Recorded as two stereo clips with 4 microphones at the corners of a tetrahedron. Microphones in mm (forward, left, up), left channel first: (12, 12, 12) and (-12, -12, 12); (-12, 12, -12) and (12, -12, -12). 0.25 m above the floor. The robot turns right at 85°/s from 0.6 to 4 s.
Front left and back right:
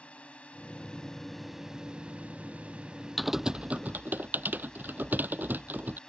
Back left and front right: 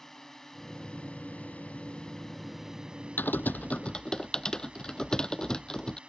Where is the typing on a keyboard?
135° left; by 6.0 s 155° right.